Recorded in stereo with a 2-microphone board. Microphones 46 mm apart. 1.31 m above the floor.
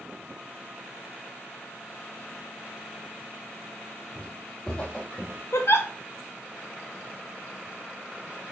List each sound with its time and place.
4.2 s footsteps: 15° left (ahead or behind), 2.5 m; by 5.4 s 35° left (ahead or behind), 2.5 m
5.5 s a giggle: 60° left (ahead or behind), 1.0 m